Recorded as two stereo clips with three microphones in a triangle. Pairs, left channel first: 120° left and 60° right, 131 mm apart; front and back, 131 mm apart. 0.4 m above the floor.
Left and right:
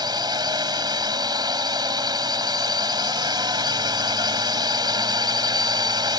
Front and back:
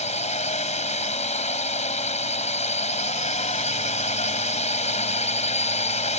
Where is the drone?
10° right.